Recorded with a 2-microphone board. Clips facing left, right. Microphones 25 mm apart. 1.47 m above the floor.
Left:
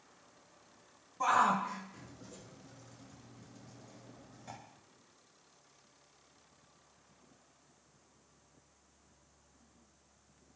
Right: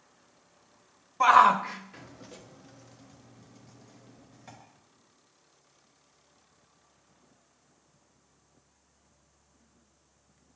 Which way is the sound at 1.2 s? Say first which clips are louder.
Right 10 dB; 60° right (ahead or behind).